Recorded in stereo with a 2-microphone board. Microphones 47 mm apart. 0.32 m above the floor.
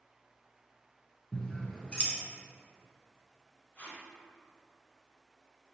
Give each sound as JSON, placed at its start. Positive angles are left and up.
{"t": 1.3, "sound": "scissors", "side_deg": 25, "distance_m": 0.6}
{"t": 3.8, "sound": "tape being pulled", "side_deg": 40, "distance_m": 0.7}